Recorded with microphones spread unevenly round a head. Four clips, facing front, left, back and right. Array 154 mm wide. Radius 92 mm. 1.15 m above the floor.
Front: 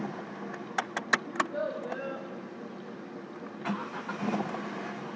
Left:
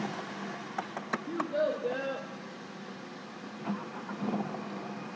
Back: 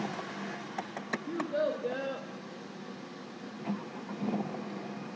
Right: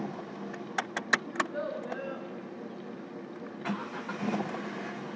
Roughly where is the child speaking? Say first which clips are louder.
Left 3 dB, back 1 dB; behind.